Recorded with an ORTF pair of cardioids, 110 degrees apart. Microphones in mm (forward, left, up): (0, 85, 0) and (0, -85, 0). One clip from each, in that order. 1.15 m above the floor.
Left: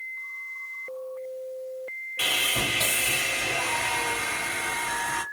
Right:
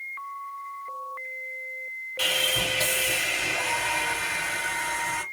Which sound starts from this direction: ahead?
Sawing, at 2.2 s.